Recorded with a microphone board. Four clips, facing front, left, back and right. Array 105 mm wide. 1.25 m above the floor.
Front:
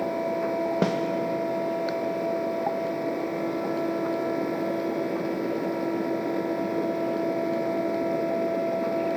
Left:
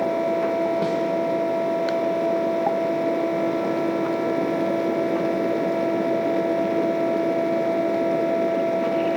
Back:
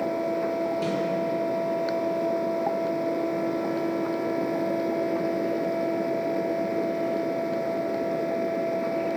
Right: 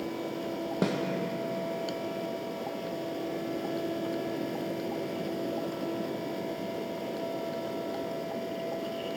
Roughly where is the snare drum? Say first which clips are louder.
Left 5 dB, front 3 dB; ahead.